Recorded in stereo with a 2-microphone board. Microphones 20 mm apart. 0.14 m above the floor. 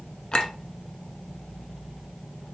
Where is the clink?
40° left (ahead or behind), 0.8 m.